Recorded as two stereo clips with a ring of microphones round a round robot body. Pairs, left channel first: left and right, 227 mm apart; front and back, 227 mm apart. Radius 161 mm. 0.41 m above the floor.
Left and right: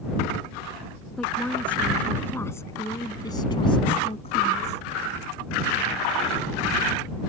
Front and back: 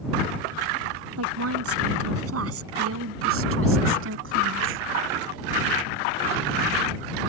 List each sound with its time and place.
1.2 s a woman speaking: straight behind; by 4.8 s 155° left